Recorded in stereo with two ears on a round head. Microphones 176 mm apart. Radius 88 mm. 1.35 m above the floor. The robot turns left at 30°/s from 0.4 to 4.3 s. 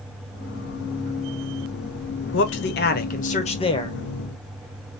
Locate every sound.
2.3 s a man speaking: 65° left, 0.8 m; by 4.0 s 20° left, 0.8 m